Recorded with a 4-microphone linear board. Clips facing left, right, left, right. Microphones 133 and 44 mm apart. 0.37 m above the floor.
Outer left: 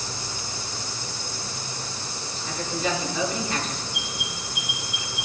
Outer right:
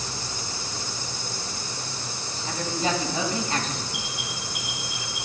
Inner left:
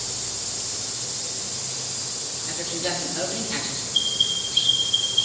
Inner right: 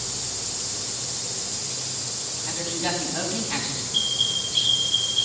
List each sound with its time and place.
2.5 s a woman speaking: 35° right (ahead or behind), 2.5 m
3.9 s an alarm: 75° right (ahead or behind), 5 m